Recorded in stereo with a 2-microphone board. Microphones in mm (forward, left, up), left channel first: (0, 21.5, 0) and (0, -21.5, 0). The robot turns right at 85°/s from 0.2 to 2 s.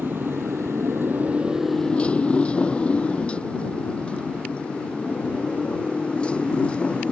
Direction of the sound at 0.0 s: 55° right (ahead or behind).